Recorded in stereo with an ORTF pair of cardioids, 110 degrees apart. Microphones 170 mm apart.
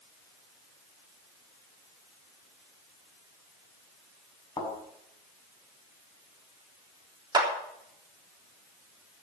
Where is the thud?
25° left, 6.5 m.